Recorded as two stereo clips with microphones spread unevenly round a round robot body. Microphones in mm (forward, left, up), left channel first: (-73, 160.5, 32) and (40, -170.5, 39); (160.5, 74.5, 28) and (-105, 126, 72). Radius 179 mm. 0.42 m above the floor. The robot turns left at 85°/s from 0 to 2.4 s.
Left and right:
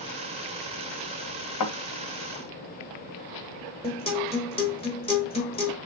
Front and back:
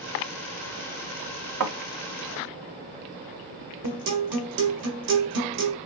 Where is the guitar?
Straight behind, 1.2 m.